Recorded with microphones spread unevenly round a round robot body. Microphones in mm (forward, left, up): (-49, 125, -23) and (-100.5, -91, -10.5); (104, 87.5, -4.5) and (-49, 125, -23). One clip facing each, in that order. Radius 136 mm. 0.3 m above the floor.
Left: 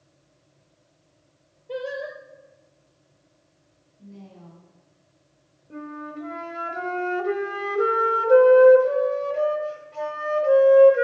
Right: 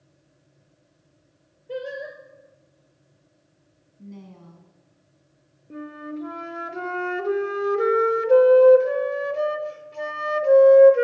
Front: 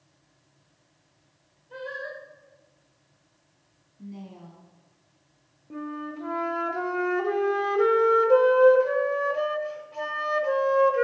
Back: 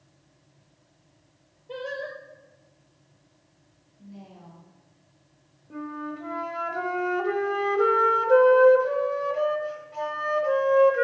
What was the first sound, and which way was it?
Singing, 175° left.